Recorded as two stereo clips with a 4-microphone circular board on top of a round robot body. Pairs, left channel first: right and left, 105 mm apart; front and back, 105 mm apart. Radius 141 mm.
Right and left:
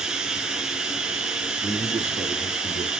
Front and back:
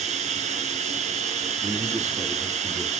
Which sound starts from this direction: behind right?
A man speaking, at 1.6 s.